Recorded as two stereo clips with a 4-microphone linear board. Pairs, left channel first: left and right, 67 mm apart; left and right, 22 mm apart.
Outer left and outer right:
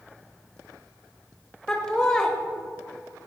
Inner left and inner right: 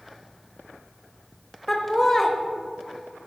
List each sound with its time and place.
1.7 s laughter: 10° left (ahead or behind), 0.9 m